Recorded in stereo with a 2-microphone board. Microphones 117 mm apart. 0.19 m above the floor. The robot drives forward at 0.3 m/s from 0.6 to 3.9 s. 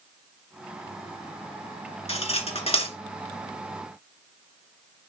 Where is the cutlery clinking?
60° left (ahead or behind), 1.6 m.